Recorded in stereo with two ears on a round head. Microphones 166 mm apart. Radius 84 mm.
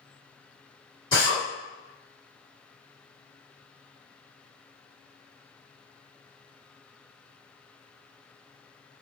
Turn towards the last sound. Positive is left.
turn(degrees=20)  # may be behind; listen again after turning